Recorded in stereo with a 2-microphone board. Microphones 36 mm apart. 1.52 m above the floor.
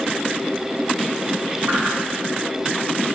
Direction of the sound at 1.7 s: 65° right (ahead or behind).